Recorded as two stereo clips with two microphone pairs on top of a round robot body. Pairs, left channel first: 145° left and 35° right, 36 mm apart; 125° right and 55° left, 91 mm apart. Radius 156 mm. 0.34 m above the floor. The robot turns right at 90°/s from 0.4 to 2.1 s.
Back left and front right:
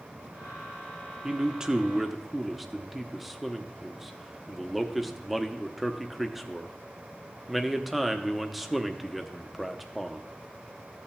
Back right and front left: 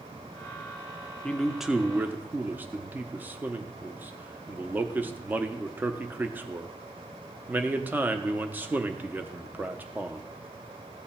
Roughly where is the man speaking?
Ahead right.